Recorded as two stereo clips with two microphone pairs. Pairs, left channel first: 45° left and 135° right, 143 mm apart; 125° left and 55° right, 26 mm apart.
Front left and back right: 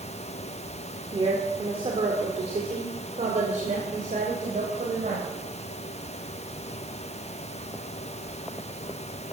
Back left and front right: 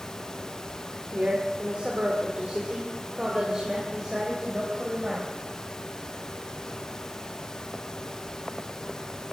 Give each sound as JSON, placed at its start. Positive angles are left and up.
{"t": 1.1, "sound": "a woman speaking", "azimuth_deg": -85, "distance_m": 2.0}